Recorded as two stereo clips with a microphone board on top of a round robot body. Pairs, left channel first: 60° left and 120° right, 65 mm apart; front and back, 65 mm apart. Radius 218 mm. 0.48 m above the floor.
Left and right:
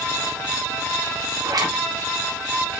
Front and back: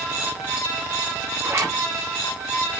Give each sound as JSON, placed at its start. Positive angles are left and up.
{"t": 1.4, "sound": "a zipper", "azimuth_deg": -130, "distance_m": 5.0}